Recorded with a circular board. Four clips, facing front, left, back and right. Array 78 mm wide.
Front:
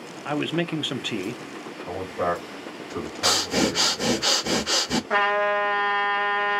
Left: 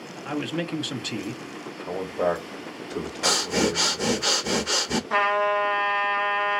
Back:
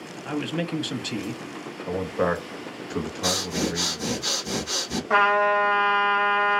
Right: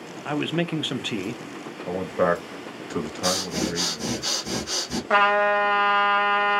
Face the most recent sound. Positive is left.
turn(degrees=-100)